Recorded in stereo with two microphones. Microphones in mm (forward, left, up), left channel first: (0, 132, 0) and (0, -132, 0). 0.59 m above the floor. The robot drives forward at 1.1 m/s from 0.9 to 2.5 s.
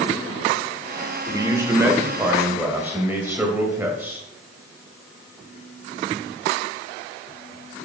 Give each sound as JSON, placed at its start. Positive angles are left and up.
{"t": 1.3, "sound": "a man speaking", "side_deg": -15, "distance_m": 1.4}